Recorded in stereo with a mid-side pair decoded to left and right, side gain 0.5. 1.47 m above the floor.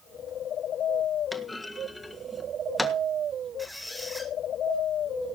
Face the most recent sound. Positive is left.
turn(degrees=0)